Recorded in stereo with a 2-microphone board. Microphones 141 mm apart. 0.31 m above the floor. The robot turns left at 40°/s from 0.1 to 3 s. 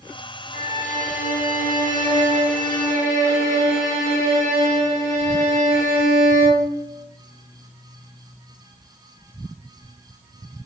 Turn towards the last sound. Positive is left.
turn(degrees=20)